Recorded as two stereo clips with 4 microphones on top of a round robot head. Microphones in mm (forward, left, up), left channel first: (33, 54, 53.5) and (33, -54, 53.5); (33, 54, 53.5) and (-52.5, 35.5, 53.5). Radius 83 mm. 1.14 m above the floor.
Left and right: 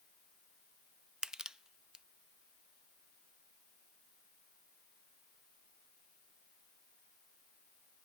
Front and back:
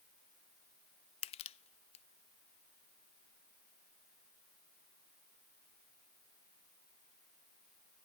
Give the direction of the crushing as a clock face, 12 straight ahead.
12 o'clock.